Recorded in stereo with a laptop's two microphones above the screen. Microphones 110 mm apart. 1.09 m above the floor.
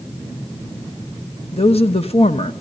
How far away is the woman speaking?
About 1.1 m.